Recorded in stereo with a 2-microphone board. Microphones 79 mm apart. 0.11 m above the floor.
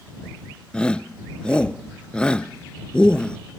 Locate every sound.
0.7 s a shout: 10° left (ahead or behind)